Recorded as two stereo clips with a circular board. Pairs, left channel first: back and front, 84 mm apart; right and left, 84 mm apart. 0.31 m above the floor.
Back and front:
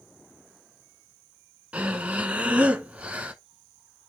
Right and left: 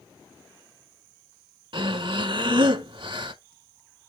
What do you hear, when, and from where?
1.7 s breathing: 75° left, 0.9 m